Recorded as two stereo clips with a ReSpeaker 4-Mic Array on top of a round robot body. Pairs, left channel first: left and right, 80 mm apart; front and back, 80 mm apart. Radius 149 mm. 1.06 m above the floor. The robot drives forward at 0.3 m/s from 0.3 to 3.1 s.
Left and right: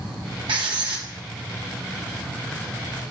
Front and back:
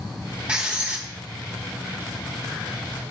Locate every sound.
0.5 s writing: 105° right, 1.1 m; by 1.1 s 115° right, 1.2 m